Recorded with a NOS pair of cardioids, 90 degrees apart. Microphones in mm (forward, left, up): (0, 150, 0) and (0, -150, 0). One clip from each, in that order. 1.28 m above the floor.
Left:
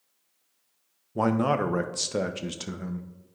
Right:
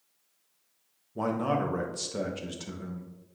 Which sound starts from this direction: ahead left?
A man speaking, at 1.1 s.